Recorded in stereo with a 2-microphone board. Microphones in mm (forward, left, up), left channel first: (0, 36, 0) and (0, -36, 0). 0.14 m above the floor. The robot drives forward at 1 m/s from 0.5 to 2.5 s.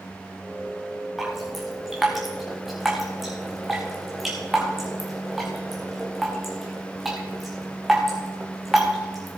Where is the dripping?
Centre (ahead or behind), 4.5 m; by 9.4 s 5° right (ahead or behind), 3.5 m.